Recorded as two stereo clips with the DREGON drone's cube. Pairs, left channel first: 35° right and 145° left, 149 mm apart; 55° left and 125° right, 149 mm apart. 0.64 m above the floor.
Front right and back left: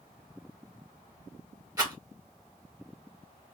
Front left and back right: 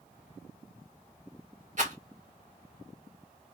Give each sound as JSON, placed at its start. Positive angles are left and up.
{"t": 1.8, "sound": "a rattle", "azimuth_deg": -150, "distance_m": 2.0}